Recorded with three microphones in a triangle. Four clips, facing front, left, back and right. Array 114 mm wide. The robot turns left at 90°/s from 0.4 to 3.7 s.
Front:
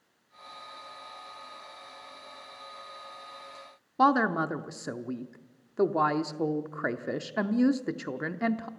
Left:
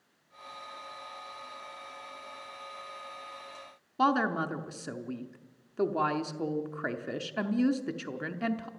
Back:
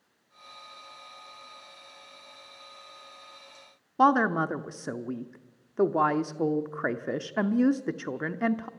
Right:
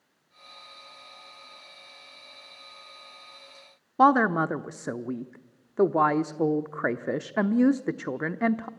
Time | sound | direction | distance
4.0 | a woman speaking | 105° right | 0.7 m